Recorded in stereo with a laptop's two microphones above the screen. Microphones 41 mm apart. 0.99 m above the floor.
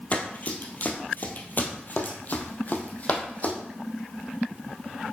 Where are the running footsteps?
35° left (ahead or behind), 1.4 m; by 3.5 s 40° left (ahead or behind), 2 m.